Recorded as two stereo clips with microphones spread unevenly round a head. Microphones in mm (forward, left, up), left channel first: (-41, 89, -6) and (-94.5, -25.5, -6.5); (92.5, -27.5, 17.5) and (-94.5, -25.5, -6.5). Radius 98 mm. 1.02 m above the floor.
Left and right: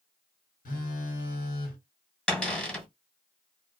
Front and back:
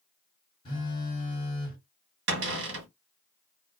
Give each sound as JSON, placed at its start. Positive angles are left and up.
{"t": 0.7, "sound": "a phone buzzing", "azimuth_deg": 65, "distance_m": 1.3}
{"t": 2.3, "sound": "a cupboard door", "azimuth_deg": 150, "distance_m": 1.4}